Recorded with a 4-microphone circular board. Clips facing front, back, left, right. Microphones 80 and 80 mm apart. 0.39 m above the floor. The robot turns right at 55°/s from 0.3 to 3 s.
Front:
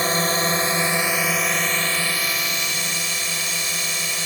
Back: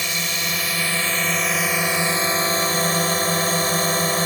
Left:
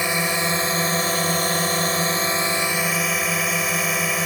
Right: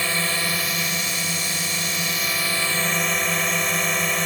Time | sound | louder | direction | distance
0.0 | a drone | front 6 dB, left 3 dB | 25° left | ?